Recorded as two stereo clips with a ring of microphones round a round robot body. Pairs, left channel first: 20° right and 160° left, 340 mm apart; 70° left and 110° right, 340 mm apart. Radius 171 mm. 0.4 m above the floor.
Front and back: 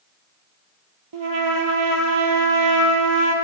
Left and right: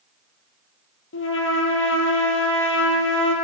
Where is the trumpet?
125° left, 3 m.